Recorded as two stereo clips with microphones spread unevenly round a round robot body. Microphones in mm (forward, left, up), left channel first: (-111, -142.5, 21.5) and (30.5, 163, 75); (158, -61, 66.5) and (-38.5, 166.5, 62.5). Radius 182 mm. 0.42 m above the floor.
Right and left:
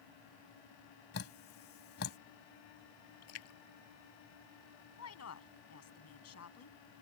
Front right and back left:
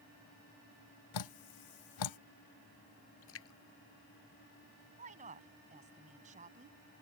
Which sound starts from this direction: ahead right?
Dripping, at 1.1 s.